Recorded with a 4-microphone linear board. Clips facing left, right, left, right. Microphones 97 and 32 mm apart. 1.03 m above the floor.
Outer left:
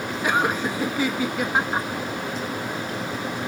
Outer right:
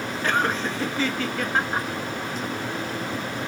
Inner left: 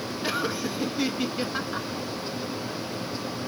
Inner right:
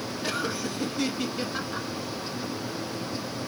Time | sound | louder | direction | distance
0.2 | laughter | outer left 2 dB, inner left 2 dB | 10° left (ahead or behind) | 1.5 m